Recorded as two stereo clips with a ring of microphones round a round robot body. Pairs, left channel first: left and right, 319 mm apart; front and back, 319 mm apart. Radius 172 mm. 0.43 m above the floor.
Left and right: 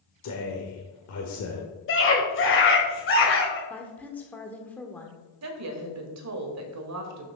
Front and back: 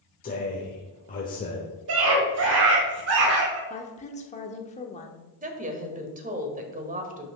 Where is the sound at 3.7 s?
15° left, 1.0 m.